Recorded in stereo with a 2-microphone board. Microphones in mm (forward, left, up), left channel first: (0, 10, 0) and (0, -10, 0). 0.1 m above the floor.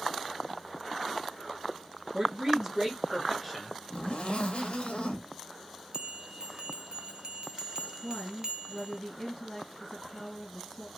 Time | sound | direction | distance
2.1 | a man speaking | 25° right (ahead or behind) | 1.2 m
3.9 | a zipper | 75° left (ahead or behind) | 0.8 m
5.9 | a bell | 45° right (ahead or behind) | 0.5 m
8.0 | a woman speaking | 15° left (ahead or behind) | 1.7 m